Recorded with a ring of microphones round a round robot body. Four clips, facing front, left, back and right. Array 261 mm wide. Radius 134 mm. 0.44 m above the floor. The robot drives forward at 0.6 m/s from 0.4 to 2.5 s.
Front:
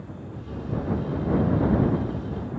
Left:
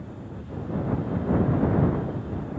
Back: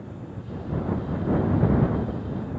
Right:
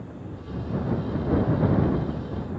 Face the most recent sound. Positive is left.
No sound to turn to.